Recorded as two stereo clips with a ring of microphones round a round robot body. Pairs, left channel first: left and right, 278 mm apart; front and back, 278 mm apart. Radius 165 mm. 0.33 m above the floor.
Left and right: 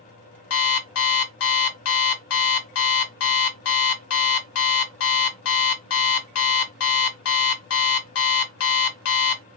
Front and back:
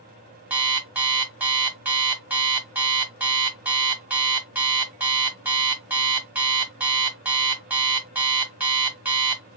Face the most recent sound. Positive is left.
turn(degrees=95)